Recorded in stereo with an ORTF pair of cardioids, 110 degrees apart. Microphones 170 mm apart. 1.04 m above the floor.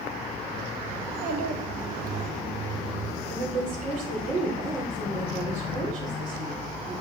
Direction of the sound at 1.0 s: 60° right.